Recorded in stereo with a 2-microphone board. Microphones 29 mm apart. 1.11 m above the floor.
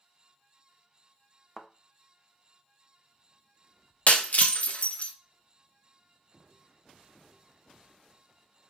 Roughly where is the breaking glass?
Left.